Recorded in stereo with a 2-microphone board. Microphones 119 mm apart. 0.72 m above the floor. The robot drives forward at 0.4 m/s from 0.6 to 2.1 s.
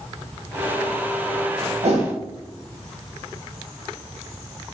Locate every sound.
1.8 s a whoosh: 65° right (ahead or behind), 1.8 m; by 2.1 s 70° right (ahead or behind), 1.7 m